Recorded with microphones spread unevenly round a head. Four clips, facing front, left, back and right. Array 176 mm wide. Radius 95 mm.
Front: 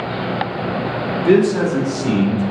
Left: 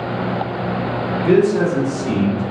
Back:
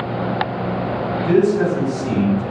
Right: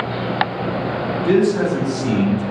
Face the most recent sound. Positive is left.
turn(degrees=-35)